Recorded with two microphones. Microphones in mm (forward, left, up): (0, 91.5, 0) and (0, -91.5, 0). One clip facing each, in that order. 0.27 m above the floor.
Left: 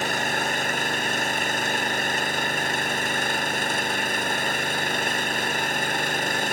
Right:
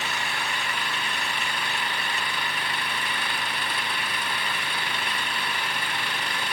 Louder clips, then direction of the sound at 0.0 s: Left 6 dB; 45° left (ahead or behind).